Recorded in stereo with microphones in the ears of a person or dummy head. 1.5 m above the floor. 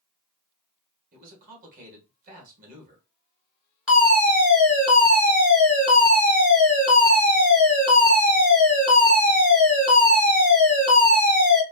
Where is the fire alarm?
5° right (ahead or behind), 1.8 m.